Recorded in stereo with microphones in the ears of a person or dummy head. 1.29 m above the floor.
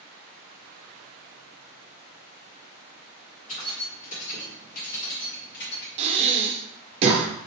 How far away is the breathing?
About 0.6 m.